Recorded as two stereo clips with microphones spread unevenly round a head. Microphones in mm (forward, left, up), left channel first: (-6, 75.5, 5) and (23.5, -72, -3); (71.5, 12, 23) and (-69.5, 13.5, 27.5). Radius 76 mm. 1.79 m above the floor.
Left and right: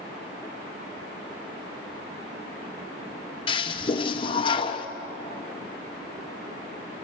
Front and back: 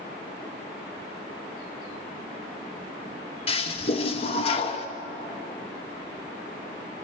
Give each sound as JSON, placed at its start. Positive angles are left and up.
{"t": 3.5, "sound": "a toilet flushing", "azimuth_deg": 50, "distance_m": 1.0}